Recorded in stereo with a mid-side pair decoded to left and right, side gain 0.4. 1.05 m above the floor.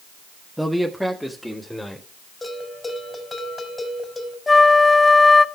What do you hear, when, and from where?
0.6 s a man speaking: 5° right, 1.0 m; by 2.1 s 10° left, 3 m
2.4 s a bell: 25° left, 4 m
4.5 s a flute: 25° left, 0.6 m